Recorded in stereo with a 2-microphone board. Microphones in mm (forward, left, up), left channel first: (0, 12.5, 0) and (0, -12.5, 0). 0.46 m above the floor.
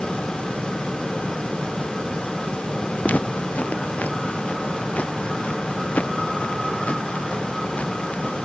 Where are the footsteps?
85° left; by 8.4 s 90° left.